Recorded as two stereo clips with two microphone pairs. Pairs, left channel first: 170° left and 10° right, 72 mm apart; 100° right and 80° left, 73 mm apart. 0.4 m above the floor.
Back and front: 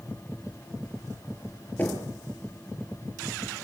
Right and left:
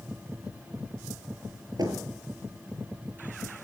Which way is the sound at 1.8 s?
110° left.